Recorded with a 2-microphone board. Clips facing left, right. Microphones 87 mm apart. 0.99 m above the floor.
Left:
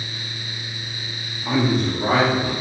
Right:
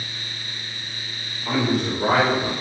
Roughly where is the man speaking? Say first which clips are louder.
Left 2 dB; centre.